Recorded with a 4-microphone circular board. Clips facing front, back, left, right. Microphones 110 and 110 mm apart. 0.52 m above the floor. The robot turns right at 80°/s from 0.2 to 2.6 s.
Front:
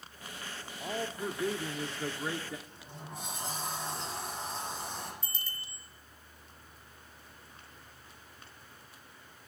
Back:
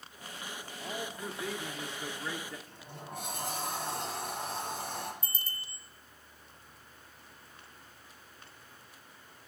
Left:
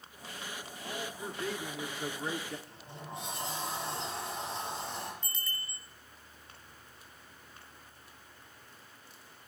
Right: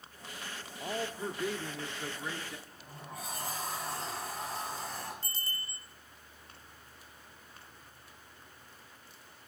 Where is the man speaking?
70° right, 0.9 m; by 2.6 s 70° left, 0.9 m.